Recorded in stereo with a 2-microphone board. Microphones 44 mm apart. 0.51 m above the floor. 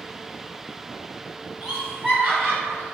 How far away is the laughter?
About 1.7 m.